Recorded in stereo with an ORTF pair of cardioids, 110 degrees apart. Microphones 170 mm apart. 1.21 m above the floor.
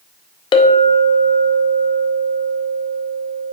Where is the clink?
30° left, 0.5 m.